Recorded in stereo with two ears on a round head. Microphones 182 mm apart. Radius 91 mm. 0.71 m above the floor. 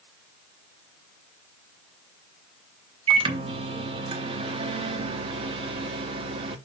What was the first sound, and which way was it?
A microwave, 25° right (ahead or behind).